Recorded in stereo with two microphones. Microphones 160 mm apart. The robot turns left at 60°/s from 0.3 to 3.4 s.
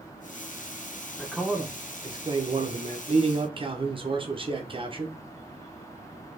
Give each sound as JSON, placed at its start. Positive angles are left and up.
{"t": 1.2, "sound": "a man speaking", "azimuth_deg": 10, "distance_m": 0.7}